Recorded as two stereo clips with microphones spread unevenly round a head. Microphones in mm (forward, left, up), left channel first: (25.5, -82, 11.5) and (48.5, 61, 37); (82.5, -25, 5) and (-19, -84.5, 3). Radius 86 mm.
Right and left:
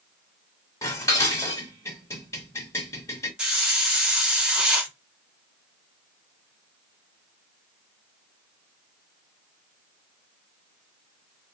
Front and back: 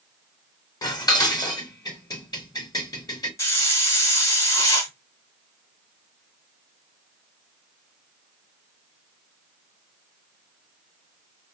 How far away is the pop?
No pop in this recording.